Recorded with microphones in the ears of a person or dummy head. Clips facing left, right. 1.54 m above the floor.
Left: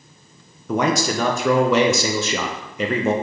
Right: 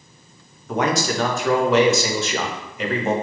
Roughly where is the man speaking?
Left.